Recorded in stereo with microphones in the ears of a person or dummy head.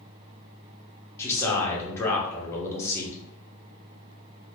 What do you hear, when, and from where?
1.2 s a man speaking: 10° left (ahead or behind), 0.9 m